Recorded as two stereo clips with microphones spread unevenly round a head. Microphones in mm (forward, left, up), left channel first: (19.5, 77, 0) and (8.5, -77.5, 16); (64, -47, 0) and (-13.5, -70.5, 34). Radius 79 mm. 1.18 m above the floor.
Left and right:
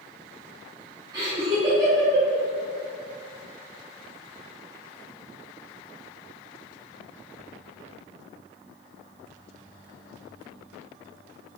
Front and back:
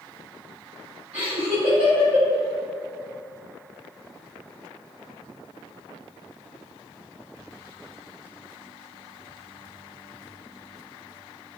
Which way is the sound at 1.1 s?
165° right.